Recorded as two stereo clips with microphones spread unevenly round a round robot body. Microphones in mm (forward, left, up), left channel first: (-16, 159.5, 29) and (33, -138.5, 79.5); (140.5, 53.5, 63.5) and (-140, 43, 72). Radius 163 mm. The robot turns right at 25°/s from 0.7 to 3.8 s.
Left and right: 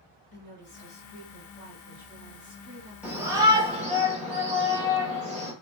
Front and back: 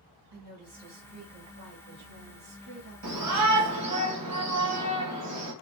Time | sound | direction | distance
0.3 | a woman speaking | 155° left | 1.8 m
3.0 | a shout | 170° right | 1.4 m